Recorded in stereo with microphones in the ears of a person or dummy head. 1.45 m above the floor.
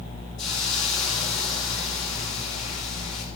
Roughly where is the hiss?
Left.